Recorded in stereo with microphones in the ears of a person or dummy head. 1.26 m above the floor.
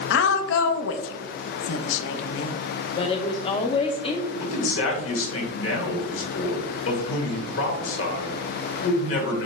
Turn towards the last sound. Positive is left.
turn(degrees=75)  # may be behind; listen again after turning